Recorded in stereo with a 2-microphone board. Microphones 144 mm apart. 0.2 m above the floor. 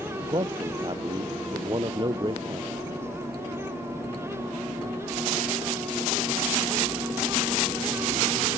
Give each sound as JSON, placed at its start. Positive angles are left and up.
{"t": 0.2, "sound": "a man speaking", "side_deg": -35}